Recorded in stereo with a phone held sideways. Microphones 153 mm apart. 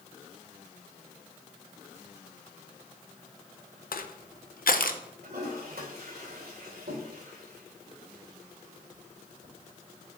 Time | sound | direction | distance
3.9 | crushing | 70° left (ahead or behind) | 0.6 m
5.2 | a toilet flushing | 85° right | 2.5 m